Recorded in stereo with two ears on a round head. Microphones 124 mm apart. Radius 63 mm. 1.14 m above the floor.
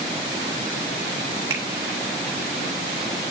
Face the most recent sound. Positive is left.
turn(degrees=-25)  # may be behind; listen again after turning